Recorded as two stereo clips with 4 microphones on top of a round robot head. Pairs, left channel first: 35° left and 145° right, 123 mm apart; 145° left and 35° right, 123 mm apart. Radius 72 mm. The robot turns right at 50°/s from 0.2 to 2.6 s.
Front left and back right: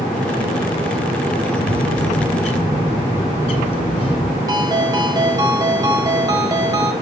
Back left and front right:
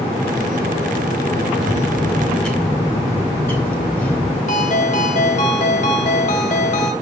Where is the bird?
25° left, 2.5 m; by 4.4 s 75° left, 2.5 m.